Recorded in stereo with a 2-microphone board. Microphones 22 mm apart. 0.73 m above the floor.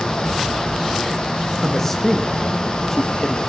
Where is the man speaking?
15° left (ahead or behind), 0.7 m.